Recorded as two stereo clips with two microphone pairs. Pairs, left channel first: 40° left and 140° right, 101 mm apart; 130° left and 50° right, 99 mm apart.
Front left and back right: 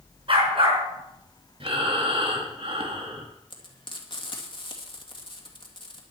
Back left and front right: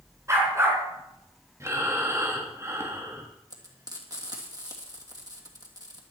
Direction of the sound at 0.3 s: 110° right.